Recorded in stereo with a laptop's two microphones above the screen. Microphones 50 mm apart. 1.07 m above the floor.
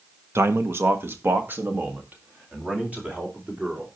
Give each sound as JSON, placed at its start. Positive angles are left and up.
{"t": 0.3, "sound": "a man speaking", "side_deg": -60, "distance_m": 0.9}